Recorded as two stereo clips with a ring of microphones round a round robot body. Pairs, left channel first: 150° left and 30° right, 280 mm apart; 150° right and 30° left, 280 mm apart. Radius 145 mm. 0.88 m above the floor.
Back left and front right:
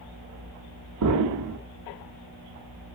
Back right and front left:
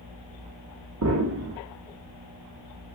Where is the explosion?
5° right, 0.7 m.